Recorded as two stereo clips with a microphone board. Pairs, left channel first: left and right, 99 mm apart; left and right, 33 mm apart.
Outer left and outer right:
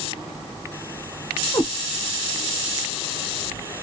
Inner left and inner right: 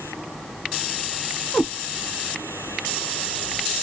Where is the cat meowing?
30° left (ahead or behind), 0.8 m.